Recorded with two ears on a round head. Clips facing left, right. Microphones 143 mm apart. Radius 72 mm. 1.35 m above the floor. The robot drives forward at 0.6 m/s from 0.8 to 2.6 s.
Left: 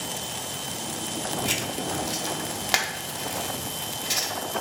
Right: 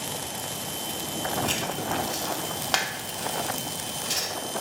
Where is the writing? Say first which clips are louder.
Right 1 dB; 10° left (ahead or behind), 0.9 m.